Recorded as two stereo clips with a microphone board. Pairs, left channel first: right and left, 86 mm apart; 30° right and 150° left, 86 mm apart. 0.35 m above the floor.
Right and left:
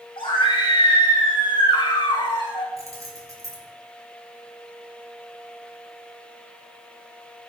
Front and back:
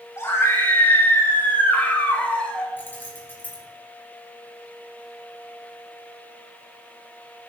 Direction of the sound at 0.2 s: 85° right.